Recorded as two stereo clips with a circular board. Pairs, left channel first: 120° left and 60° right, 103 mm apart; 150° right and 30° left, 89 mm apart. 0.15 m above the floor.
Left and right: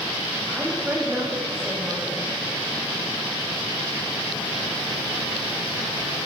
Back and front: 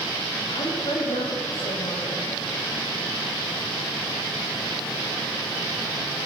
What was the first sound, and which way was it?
A woman speaking, 135° right.